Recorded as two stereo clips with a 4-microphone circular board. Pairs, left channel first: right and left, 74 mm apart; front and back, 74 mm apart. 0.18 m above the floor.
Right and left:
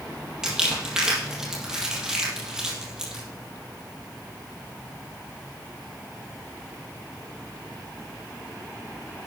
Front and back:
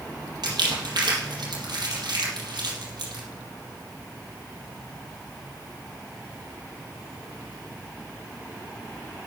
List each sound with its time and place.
0.4 s crumpling: 170° left, 4 m